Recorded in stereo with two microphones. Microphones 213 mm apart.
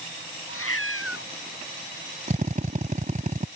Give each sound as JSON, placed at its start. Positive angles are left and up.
{"t": 0.5, "sound": "a cat meowing", "side_deg": 85}
{"t": 2.3, "sound": "a drill", "side_deg": -40}